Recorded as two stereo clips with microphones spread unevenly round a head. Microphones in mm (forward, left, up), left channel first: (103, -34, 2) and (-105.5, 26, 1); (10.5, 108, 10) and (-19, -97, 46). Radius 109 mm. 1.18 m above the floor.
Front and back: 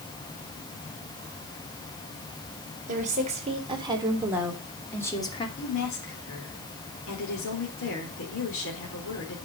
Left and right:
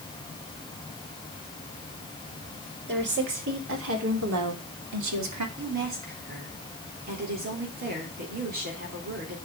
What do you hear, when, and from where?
2.9 s a woman speaking: 140° right, 4.5 m; by 5.5 s 85° right, 3 m
5.6 s a woman speaking: 50° right, 3.5 m